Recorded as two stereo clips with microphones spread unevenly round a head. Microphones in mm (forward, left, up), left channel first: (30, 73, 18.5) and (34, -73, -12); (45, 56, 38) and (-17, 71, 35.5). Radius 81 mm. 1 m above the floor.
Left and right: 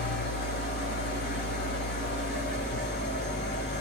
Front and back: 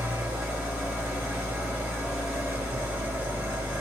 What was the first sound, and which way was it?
An engine running, 105° left.